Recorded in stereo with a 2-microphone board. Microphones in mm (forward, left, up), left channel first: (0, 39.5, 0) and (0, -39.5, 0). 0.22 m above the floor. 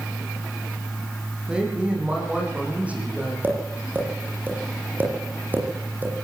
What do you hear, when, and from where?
1.5 s a woman speaking: 15° right (ahead or behind), 8.5 m; by 3.3 s 20° right (ahead or behind), 9.5 m
3.4 s tapping: 25° right (ahead or behind), 8.5 m